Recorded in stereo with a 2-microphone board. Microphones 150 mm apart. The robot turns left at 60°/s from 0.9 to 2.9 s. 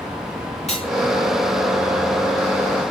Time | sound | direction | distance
0.7 | cutlery clinking | 50° left (ahead or behind) | 5 m